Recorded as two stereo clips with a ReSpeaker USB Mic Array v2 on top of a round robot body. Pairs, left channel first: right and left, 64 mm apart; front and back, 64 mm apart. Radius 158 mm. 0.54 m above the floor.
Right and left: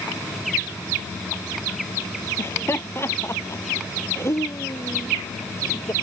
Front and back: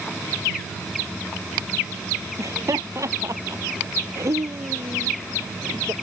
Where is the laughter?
145° right; by 5.9 s 135° right.